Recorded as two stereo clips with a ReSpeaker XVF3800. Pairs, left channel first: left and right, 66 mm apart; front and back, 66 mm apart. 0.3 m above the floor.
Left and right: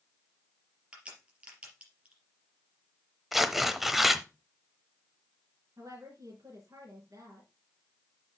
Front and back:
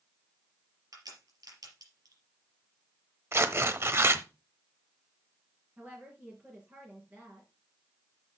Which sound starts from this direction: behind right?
A woman speaking, at 5.8 s.